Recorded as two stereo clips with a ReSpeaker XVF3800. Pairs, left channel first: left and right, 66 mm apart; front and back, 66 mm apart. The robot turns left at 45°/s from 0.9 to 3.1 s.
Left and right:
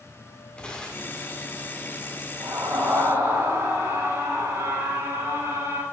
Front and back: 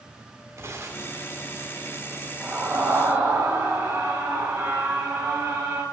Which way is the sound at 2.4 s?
85° right.